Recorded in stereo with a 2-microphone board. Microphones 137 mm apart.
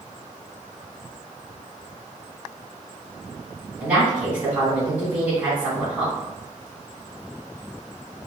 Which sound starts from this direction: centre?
A woman speaking, at 3.8 s.